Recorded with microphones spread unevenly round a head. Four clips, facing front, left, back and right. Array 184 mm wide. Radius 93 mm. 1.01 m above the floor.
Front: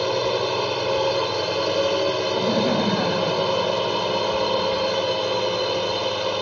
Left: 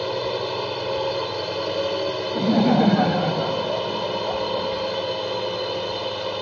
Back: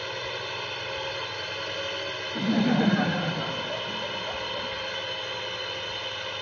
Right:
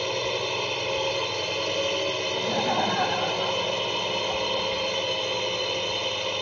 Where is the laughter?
100° left.